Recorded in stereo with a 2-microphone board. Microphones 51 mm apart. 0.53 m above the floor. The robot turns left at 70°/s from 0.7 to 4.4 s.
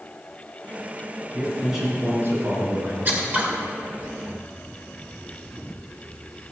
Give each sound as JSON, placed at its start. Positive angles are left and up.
{"t": 1.3, "sound": "a man speaking", "azimuth_deg": 20, "distance_m": 4.5}
{"t": 3.0, "sound": "scissors", "side_deg": -40, "distance_m": 2.0}